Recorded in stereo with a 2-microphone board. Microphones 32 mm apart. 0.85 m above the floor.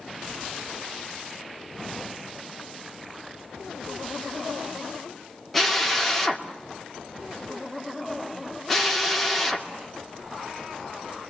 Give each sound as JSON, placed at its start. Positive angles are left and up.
{"t": 5.5, "sound": "a drill", "side_deg": 5, "distance_m": 2.5}